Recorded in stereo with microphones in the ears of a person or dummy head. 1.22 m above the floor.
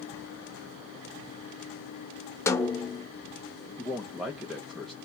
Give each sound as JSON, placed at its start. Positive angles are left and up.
{"t": 2.5, "sound": "a snare drum", "side_deg": 15, "distance_m": 0.6}
{"t": 3.8, "sound": "a man speaking", "side_deg": -5, "distance_m": 0.8}